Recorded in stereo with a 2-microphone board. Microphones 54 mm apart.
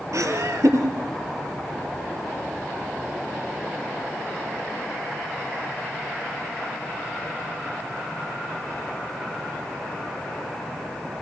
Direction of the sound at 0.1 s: 70° right (ahead or behind).